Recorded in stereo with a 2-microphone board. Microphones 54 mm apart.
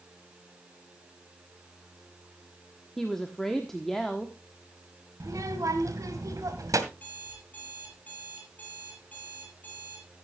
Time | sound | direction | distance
3.0 | a woman speaking | 5° left (ahead or behind) | 1.3 m
5.2 | a child speaking | 75° right (ahead or behind) | 2.5 m
6.9 | an alarm clock | 30° left (ahead or behind) | 6.5 m